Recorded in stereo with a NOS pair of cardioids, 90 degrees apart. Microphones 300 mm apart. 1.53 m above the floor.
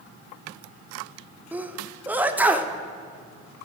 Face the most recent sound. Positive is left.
turn(degrees=-5)